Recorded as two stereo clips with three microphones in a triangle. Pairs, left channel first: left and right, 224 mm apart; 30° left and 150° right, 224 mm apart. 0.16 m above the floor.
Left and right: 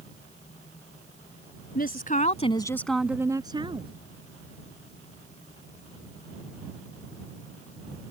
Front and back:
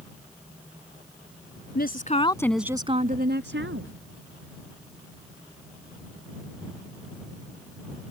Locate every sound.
1.8 s a woman speaking: 55° left; by 3.9 s 155° right